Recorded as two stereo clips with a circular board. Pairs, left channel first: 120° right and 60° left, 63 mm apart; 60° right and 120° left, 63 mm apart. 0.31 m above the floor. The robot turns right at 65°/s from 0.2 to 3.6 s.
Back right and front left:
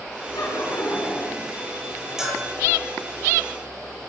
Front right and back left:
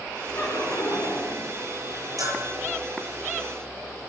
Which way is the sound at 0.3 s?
110° right.